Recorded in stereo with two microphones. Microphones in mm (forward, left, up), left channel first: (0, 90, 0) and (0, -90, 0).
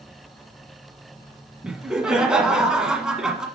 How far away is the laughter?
About 1.3 m.